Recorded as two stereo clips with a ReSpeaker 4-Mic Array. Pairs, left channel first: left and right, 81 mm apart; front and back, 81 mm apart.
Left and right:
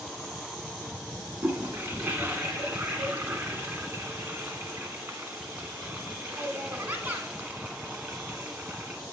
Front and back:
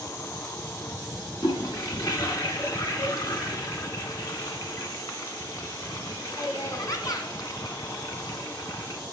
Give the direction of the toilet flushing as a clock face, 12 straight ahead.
1 o'clock.